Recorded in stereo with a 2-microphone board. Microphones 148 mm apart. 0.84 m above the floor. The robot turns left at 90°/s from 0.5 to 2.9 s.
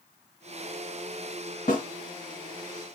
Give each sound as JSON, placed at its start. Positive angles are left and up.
{"t": 1.7, "sound": "a snare drum", "side_deg": 70, "distance_m": 2.5}